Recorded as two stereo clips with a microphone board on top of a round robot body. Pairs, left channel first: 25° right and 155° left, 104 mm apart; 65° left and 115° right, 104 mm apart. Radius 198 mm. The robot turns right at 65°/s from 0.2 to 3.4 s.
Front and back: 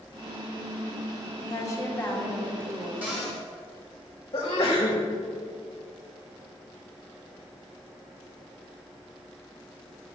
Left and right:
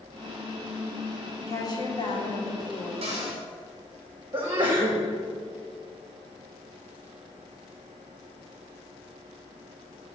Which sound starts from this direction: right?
A sneeze, at 4.3 s.